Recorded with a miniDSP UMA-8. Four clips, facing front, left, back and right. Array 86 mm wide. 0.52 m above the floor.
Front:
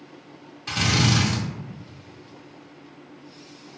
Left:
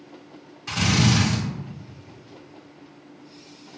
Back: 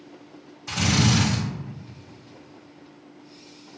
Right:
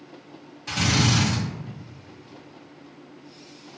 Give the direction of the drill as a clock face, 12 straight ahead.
12 o'clock.